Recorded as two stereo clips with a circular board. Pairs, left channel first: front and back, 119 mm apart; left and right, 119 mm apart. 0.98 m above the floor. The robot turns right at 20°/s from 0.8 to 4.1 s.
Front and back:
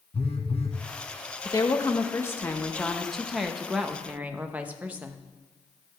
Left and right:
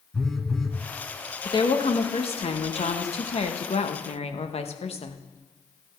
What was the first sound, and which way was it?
A phone buzzing, 5° left.